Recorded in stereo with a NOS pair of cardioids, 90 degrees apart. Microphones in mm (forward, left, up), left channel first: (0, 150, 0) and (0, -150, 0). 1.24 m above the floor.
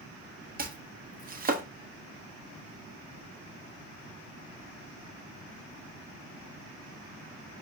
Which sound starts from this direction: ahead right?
Chopping, at 0.6 s.